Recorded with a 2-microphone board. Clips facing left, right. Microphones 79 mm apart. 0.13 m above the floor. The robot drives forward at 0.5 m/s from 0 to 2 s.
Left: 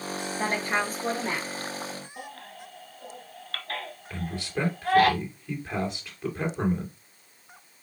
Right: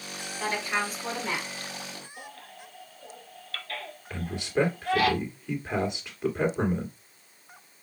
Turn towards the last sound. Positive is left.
turn(degrees=-20)  # may be behind; listen again after turning